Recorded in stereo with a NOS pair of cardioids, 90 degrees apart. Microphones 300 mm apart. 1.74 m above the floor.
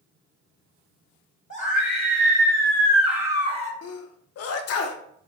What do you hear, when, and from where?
1.5 s a scream: 25° left, 1.7 m; by 3.7 s 25° right, 0.9 m
3.8 s a sneeze: 55° left, 0.5 m